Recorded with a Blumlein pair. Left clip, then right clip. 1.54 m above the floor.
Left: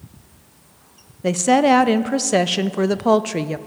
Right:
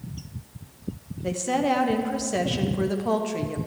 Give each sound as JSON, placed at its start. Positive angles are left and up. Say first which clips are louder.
{"t": 1.2, "sound": "a woman speaking", "louder": "left 9 dB", "azimuth_deg": 60, "distance_m": 0.6}